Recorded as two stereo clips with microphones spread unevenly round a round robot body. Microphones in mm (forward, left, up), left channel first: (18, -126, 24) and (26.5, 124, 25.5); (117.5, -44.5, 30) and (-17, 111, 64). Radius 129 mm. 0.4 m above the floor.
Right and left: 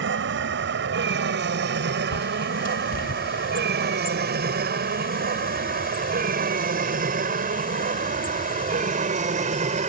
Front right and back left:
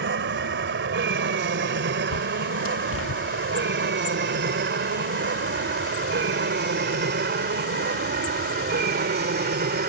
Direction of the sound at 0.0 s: 120° left.